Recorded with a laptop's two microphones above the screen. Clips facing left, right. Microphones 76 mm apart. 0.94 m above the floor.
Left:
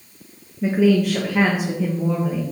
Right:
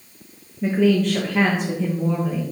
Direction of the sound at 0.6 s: 5° left (ahead or behind).